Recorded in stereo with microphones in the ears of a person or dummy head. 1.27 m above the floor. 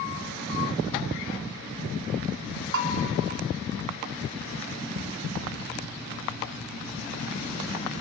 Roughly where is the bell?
Right.